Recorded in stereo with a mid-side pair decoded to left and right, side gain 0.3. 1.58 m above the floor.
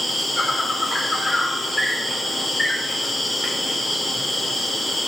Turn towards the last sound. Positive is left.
turn(degrees=30)